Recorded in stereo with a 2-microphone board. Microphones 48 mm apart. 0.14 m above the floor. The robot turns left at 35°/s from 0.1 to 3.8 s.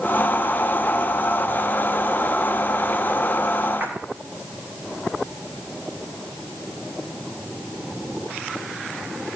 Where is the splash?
40° right (ahead or behind), 2.5 m.